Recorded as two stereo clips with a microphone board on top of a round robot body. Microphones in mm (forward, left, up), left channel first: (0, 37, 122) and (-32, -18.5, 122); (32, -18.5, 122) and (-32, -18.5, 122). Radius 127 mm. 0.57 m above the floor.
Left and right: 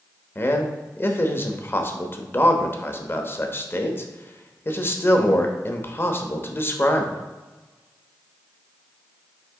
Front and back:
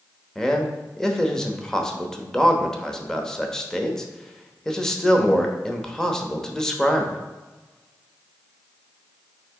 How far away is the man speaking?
About 1.1 m.